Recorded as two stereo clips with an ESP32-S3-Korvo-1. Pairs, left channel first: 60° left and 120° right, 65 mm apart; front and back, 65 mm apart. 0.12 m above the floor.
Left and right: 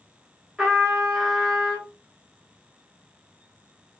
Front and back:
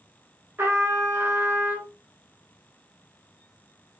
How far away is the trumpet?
About 1.4 m.